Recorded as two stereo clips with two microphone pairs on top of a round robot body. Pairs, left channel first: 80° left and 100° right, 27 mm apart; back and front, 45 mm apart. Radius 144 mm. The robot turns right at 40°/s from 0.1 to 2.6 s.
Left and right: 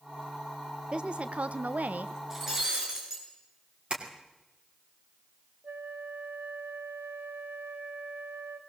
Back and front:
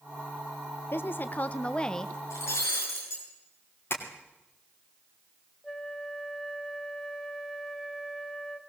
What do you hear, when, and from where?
0.9 s a woman speaking: 150° right, 0.7 m; by 2.1 s 100° right, 0.7 m
2.3 s breaking glass: 175° right, 6.5 m; by 3.2 s 165° right, 6.5 m
3.9 s tapping: 145° right, 3 m
5.6 s a flute: 95° right, 0.8 m